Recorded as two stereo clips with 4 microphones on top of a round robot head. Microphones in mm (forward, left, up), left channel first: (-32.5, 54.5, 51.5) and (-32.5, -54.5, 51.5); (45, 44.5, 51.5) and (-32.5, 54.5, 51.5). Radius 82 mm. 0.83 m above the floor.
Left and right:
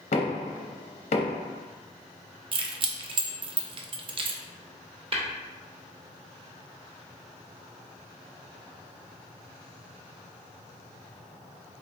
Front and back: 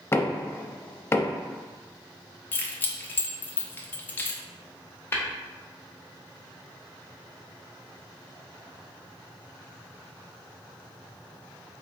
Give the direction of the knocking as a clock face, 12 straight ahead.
10 o'clock.